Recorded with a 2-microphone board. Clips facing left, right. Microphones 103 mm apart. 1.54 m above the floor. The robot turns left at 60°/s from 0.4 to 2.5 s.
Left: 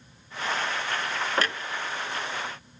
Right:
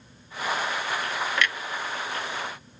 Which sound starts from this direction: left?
A clunk, at 1.4 s.